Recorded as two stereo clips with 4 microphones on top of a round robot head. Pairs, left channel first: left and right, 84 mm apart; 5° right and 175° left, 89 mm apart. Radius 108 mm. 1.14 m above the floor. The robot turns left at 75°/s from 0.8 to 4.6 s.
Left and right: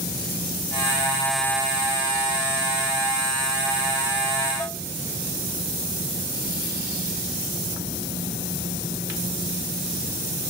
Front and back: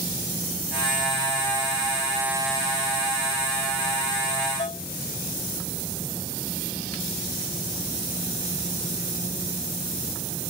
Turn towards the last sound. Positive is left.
turn(degrees=20)